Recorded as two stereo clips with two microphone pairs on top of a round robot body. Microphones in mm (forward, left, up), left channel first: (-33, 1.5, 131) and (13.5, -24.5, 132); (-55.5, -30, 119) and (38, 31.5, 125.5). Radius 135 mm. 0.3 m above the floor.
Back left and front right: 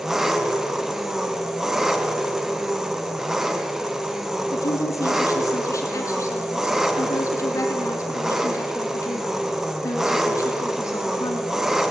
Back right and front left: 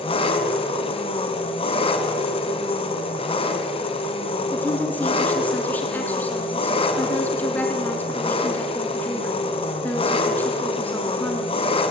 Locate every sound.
0.0 s an engine running: 110° right, 2.5 m
4.5 s a woman speaking: 140° left, 4 m